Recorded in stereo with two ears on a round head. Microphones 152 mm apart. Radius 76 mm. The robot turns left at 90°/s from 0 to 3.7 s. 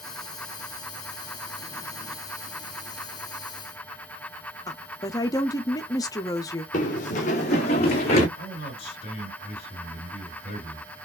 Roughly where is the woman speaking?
Left.